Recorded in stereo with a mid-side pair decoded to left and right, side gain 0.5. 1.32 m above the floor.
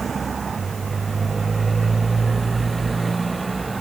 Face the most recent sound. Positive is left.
turn(degrees=-20)